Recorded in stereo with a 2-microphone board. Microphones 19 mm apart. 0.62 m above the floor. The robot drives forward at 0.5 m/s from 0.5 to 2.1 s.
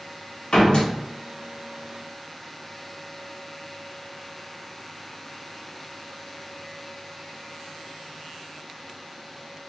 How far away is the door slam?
About 1.2 m.